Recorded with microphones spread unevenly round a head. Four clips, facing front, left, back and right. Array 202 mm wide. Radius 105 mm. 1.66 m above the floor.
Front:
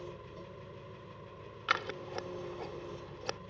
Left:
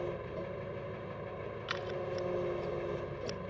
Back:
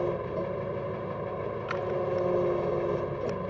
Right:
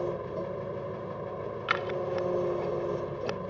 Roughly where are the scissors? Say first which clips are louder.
Right 7 dB, back 6 dB; ahead right.